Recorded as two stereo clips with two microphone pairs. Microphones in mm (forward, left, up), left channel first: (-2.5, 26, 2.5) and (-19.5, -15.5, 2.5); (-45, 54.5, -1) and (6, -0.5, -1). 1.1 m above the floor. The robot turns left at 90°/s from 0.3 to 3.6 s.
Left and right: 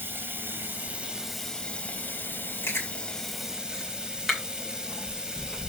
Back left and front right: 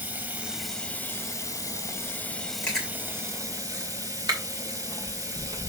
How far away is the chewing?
About 2.5 m.